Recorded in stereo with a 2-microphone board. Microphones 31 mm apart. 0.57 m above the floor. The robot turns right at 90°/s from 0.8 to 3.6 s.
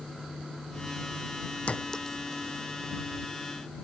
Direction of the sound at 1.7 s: 40° left (ahead or behind).